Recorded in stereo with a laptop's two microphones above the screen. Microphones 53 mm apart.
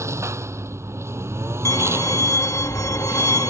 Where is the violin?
85° left.